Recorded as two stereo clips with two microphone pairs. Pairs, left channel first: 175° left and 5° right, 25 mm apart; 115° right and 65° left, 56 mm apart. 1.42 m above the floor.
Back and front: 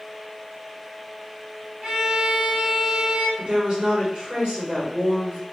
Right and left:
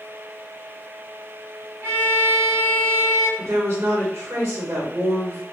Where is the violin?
30° left, 1.3 m.